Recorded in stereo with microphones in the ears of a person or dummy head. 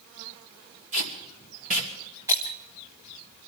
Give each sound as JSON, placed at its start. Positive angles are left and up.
{"t": 0.9, "sound": "tape being pulled", "side_deg": -40, "distance_m": 2.5}
{"t": 2.3, "sound": "breaking glass", "side_deg": -15, "distance_m": 1.1}